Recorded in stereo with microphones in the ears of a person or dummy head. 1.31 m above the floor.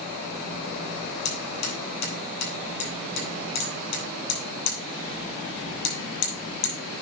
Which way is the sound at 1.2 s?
60° left (ahead or behind).